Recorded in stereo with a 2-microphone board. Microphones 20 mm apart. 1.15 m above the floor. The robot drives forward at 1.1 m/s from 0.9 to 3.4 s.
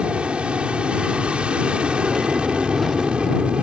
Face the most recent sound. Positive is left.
turn(degrees=-65)  # may be behind; listen again after turning